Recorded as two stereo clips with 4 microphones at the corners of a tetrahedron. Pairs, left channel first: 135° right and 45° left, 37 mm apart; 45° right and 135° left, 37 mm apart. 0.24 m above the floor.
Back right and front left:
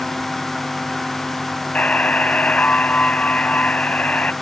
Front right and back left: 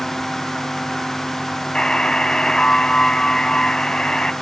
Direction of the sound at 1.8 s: 100° right.